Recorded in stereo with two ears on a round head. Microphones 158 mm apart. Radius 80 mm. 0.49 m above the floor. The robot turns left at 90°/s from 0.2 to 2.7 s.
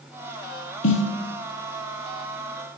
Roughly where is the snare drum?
Left.